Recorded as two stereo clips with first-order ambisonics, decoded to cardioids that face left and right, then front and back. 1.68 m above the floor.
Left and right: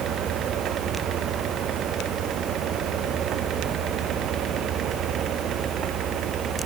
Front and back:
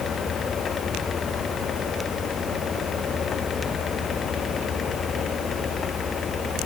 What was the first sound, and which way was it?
Only background noise.